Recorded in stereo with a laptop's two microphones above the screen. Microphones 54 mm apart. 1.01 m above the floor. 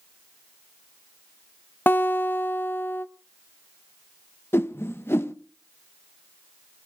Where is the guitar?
40° left (ahead or behind), 0.8 m.